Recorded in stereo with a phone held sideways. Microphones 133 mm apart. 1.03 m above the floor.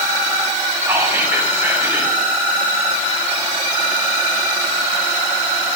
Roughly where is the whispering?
Centre.